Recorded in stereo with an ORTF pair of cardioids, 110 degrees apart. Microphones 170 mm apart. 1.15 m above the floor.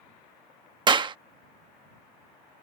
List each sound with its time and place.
0.9 s a clap: 25° right